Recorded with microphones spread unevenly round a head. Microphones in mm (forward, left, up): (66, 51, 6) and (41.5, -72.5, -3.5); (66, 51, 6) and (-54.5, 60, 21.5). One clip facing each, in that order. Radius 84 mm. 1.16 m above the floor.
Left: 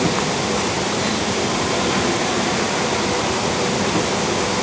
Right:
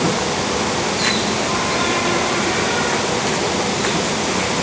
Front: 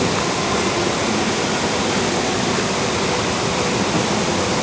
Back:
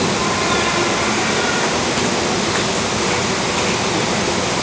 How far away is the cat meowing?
I don't hear a cat meowing.